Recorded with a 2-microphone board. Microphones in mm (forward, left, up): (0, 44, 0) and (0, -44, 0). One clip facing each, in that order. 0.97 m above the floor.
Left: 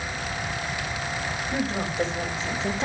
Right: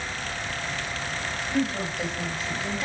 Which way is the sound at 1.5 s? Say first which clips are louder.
Right 1 dB; 25° left (ahead or behind).